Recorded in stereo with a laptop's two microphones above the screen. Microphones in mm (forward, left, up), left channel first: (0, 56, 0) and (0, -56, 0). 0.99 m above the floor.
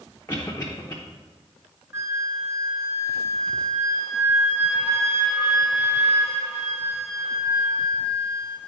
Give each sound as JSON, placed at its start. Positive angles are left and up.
{"t": 0.3, "sound": "a cough", "side_deg": 20, "distance_m": 0.7}
{"t": 1.9, "sound": "a flute", "side_deg": -25, "distance_m": 1.7}